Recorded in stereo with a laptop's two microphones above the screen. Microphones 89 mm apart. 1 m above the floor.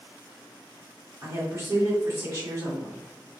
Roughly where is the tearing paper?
No tearing paper in this recording.